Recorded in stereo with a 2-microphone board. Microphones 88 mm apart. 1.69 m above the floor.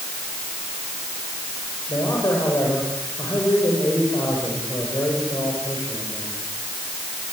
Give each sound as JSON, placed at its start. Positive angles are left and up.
{"t": 1.9, "sound": "a man speaking", "side_deg": 40, "distance_m": 7.5}